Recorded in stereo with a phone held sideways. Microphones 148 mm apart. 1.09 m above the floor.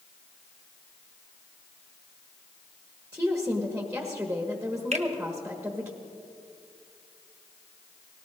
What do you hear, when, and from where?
3.1 s a woman speaking: 10° right (ahead or behind), 1.4 m
4.9 s a finger snap: 50° right (ahead or behind), 1.1 m